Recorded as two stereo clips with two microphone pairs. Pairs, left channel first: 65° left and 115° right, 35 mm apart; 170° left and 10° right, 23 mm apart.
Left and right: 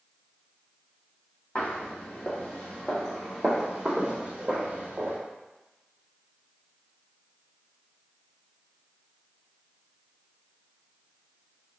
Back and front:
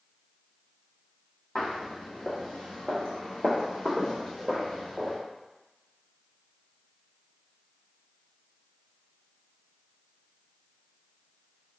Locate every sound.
1.6 s footsteps: 120° left, 1.9 m; by 5.2 s 120° right, 1.4 m